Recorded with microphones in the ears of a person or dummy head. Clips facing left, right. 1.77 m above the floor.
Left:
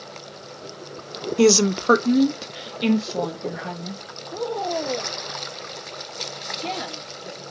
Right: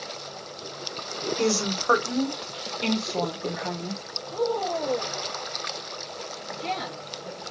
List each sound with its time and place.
1.4 s a woman speaking: 70° left (ahead or behind), 0.8 m; by 4.0 s 5° right (ahead or behind), 1.7 m
4.3 s a woman speaking: 5° left (ahead or behind), 2.5 m